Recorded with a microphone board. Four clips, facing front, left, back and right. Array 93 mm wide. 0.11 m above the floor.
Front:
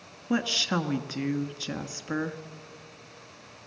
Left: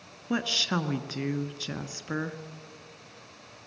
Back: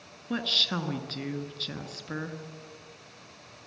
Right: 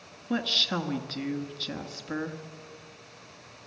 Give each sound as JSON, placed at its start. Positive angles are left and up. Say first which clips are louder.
{"t": 0.3, "sound": "a woman speaking", "louder": "left 1 dB, front 5 dB", "azimuth_deg": 35, "distance_m": 1.1}